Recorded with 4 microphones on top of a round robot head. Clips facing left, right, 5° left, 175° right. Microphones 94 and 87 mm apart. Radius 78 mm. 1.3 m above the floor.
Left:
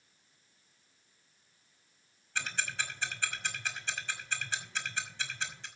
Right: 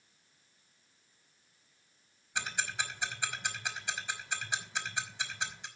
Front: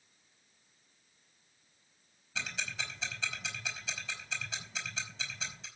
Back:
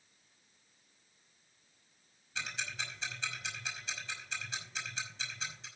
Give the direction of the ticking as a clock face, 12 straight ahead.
1 o'clock.